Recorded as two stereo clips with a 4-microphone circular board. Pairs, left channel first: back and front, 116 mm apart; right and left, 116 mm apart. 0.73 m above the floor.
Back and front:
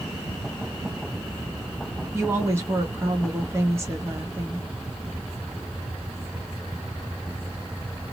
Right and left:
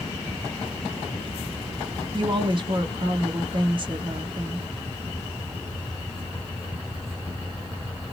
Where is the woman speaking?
60° left, 0.9 m.